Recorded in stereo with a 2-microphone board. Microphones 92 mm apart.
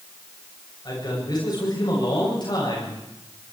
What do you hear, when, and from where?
0.8 s a man speaking: 50° left (ahead or behind), 8 m